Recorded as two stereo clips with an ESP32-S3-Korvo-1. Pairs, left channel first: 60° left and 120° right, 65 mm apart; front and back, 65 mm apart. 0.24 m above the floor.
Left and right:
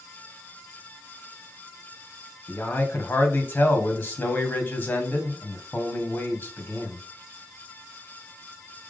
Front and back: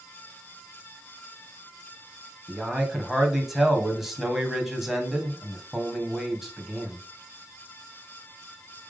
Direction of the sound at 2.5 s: 95° left.